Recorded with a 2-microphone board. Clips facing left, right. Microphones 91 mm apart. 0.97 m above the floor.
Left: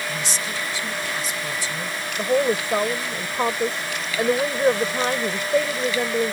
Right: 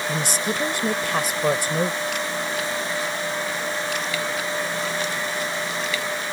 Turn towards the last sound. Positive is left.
turn(degrees=80)